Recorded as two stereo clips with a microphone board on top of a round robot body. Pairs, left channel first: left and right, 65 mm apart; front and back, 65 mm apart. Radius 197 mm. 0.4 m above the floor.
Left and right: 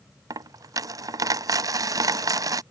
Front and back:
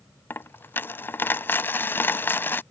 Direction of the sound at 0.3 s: 60° right.